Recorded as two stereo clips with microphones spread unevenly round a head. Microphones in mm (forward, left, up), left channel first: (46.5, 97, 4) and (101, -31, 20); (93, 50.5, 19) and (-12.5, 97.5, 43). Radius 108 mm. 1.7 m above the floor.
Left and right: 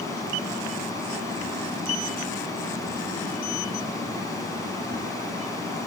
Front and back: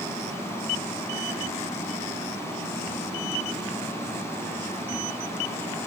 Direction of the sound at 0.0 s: 45° left.